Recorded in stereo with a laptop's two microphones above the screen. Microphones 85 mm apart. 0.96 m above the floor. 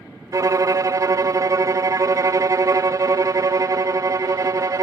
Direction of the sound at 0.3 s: 40° right (ahead or behind).